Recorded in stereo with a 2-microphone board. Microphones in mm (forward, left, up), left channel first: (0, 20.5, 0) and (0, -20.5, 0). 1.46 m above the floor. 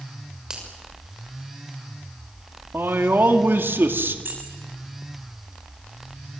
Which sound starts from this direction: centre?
A finger snap, at 0.5 s.